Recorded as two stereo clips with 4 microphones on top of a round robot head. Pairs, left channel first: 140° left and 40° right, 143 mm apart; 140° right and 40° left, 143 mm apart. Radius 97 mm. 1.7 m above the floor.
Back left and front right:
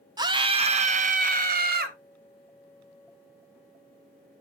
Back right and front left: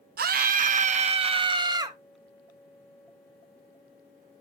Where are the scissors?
I don't hear scissors.